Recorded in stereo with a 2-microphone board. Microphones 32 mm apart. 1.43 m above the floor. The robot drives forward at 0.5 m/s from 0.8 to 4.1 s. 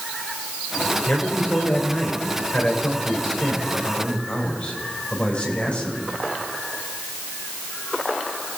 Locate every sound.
1.1 s a man speaking: 50° left (ahead or behind), 5 m; by 6.1 s 40° left (ahead or behind), 6 m